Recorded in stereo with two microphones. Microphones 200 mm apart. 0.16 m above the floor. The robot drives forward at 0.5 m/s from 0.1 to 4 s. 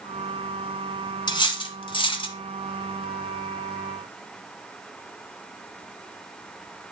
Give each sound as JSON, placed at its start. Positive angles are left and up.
{"t": 1.3, "sound": "cutlery clinking", "side_deg": 20, "distance_m": 0.9}